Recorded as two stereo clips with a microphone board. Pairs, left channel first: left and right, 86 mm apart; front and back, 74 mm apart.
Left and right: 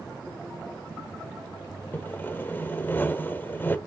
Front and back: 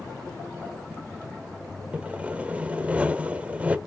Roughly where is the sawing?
Behind left.